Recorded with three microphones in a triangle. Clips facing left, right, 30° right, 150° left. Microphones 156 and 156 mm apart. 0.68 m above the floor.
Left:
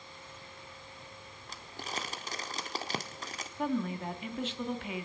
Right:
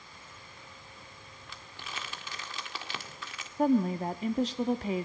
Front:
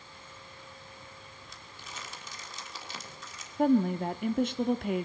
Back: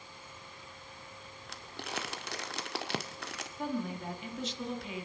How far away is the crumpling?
About 1.7 m.